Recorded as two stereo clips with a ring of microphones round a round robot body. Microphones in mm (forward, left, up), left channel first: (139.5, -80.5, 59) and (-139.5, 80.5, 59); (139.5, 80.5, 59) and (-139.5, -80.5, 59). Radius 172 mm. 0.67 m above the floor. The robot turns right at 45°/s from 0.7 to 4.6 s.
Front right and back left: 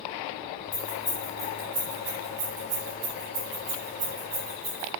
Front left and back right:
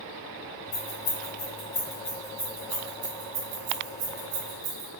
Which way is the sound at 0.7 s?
30° left.